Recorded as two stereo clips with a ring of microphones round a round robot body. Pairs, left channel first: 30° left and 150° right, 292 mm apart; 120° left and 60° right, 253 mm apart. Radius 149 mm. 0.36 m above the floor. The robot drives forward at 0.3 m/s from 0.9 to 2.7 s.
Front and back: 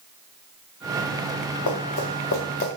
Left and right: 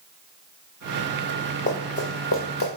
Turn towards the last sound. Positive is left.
turn(degrees=85)